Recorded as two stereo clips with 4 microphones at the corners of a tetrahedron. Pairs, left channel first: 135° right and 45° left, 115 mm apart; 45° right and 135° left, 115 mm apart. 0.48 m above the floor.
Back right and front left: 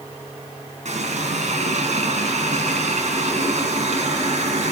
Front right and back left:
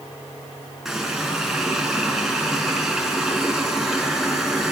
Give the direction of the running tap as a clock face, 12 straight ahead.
10 o'clock.